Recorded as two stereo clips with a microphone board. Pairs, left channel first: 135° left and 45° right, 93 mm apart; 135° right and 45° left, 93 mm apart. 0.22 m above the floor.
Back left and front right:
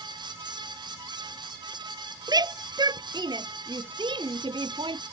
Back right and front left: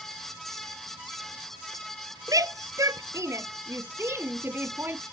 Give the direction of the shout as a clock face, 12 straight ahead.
12 o'clock.